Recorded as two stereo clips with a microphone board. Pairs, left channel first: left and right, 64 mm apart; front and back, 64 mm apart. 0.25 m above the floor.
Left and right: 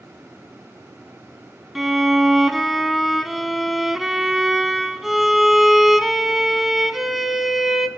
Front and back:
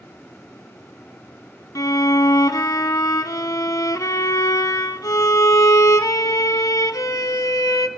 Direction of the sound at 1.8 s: 5° right.